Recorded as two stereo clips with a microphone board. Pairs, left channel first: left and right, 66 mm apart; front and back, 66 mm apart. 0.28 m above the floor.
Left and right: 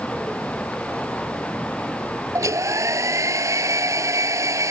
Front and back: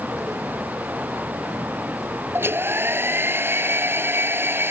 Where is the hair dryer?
125° right.